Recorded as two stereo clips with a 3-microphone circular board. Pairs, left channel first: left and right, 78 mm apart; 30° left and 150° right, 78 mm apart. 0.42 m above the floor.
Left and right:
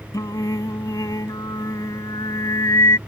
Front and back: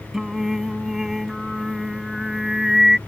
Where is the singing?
125° left.